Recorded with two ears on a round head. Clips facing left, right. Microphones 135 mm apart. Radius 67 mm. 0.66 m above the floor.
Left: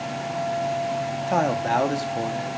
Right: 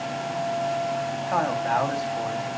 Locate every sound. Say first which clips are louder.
1.3 s a man speaking: left 2 dB; 35° left (ahead or behind), 0.8 m